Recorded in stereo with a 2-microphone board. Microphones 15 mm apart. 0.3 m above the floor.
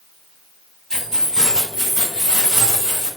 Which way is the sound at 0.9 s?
50° left (ahead or behind).